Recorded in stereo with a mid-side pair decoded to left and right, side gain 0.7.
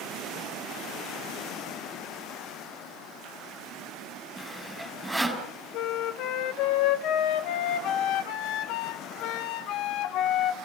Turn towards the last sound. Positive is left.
turn(degrees=60)